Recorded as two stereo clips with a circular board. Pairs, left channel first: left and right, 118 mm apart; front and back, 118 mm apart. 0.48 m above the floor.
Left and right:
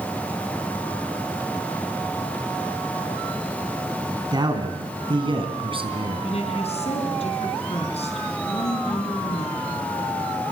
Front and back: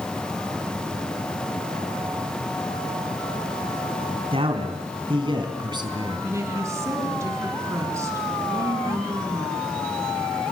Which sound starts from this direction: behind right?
A man speaking, at 4.3 s.